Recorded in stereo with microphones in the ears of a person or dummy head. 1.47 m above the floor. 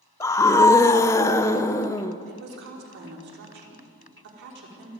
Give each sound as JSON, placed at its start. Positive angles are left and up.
{"t": 0.2, "sound": "a scream", "side_deg": 15, "distance_m": 0.9}
{"t": 2.3, "sound": "a woman speaking", "side_deg": -60, "distance_m": 5.0}